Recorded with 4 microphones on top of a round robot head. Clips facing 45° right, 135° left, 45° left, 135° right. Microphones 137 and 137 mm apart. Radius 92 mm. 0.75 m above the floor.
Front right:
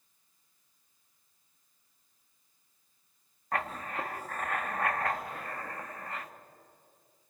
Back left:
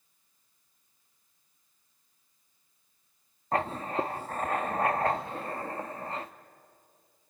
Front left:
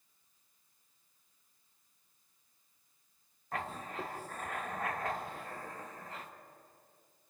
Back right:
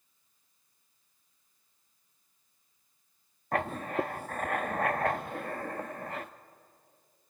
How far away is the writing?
About 0.8 m.